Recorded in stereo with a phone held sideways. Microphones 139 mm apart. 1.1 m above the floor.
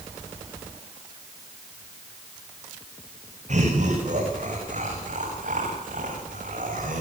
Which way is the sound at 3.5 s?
60° right (ahead or behind).